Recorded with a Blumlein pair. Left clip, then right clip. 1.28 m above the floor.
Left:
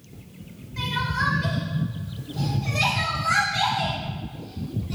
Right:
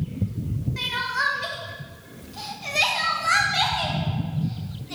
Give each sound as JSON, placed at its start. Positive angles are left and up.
{"t": 0.8, "sound": "crying", "azimuth_deg": -15, "distance_m": 1.1}